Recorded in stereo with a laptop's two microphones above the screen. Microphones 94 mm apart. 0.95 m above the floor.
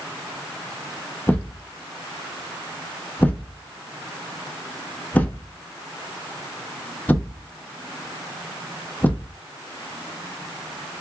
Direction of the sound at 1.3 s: 15° left (ahead or behind).